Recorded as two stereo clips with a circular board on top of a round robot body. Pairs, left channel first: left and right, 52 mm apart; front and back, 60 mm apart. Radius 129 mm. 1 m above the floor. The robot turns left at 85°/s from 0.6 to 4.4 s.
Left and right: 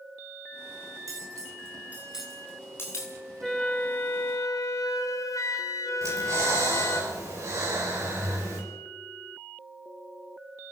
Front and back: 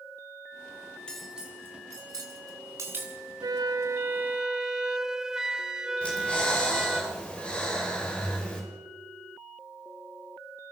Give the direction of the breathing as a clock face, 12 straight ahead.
2 o'clock.